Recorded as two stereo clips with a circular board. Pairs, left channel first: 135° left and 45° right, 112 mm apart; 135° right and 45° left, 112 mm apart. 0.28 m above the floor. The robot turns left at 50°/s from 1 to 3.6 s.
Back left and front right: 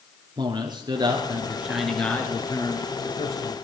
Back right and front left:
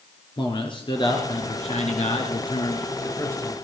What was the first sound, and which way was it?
A man speaking, 95° right.